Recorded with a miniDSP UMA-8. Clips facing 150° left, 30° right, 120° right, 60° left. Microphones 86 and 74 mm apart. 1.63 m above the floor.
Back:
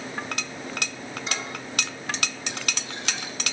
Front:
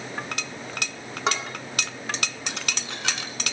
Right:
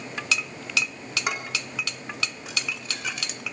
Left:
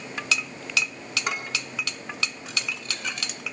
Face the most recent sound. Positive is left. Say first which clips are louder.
# front 8 dB, right 1 dB
turn(degrees=-40)